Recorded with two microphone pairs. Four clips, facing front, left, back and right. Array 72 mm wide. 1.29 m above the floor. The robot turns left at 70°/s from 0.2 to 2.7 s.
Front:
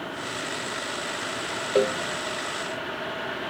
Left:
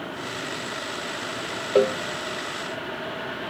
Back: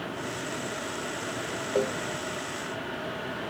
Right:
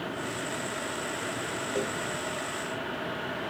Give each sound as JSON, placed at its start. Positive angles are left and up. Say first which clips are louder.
{"t": 1.8, "sound": "a cowbell", "louder": "left 14 dB, front 5 dB", "azimuth_deg": 75}